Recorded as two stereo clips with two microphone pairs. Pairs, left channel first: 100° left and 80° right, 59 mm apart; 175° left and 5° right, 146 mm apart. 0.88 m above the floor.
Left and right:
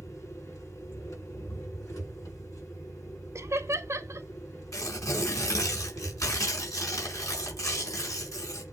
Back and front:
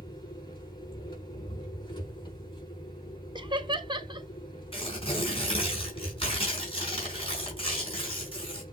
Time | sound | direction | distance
0.0 | an engine running | 120° left | 6 m
3.4 | laughter | 55° right | 1.3 m
4.7 | tearing paper | 125° left | 4.5 m